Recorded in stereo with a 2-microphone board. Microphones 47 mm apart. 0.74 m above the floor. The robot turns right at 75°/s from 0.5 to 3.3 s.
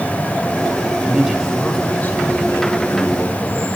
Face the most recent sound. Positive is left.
turn(degrees=140)